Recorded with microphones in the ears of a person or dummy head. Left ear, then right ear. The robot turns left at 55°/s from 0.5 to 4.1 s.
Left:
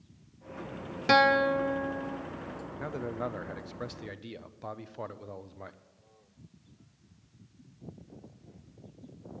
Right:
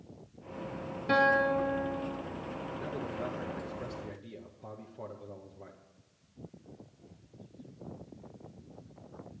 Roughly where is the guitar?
Left.